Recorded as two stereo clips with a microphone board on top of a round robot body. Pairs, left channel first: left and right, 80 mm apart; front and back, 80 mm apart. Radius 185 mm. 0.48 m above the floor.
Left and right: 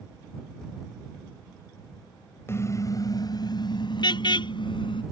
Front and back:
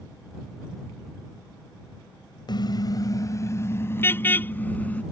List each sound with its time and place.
2.5 s a car horn: 30° left; by 5.0 s 75° left